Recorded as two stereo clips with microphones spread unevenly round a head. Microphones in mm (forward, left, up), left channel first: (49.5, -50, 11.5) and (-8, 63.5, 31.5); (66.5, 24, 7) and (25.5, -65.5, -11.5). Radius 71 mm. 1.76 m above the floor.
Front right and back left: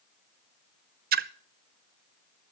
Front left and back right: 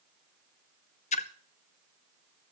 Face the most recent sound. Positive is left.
turn(degrees=105)